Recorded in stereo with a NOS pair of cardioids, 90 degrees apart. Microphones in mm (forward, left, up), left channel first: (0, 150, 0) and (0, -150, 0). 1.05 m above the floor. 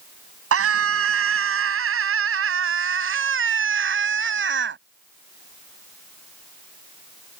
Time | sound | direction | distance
0.5 | a scream | 50° right | ?